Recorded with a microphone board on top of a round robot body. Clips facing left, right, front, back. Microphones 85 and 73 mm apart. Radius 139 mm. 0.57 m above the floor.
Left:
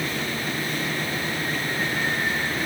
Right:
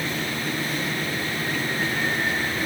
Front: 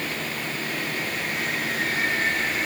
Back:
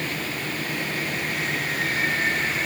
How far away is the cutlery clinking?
No cutlery clinking in this recording.